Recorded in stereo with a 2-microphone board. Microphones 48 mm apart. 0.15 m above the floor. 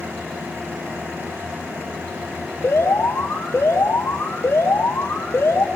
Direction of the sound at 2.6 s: 70° left (ahead or behind).